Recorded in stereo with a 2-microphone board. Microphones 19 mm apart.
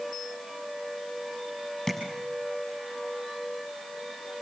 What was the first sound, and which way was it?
Tapping, 15° left (ahead or behind).